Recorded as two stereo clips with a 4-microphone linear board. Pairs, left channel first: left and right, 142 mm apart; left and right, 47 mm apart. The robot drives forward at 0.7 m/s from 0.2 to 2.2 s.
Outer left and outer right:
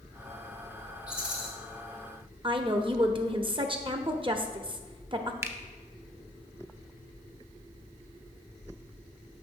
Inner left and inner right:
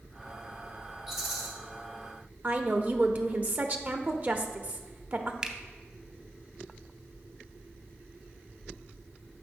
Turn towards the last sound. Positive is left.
turn(degrees=-20)  # may be behind; listen again after turning